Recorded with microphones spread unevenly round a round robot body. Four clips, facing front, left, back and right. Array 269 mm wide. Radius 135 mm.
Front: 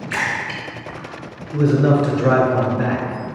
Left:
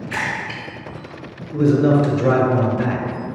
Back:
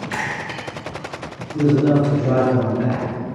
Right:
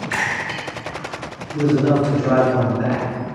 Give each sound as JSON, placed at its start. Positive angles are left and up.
{"t": 0.1, "sound": "a splash", "azimuth_deg": -165, "distance_m": 1.9}
{"t": 1.5, "sound": "a man speaking", "azimuth_deg": 45, "distance_m": 1.9}